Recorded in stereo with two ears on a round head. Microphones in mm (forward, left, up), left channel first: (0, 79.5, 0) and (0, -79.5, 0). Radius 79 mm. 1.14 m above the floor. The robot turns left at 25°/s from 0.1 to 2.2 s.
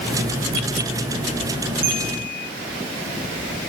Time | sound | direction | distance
1.8 | a bell | 55° right (ahead or behind) | 5.5 m